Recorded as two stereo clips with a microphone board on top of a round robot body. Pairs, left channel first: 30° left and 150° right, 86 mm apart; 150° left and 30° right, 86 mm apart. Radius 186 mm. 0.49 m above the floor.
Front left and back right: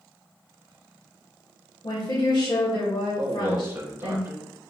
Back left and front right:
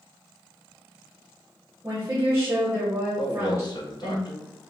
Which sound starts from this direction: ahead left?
A woman speaking, at 1.8 s.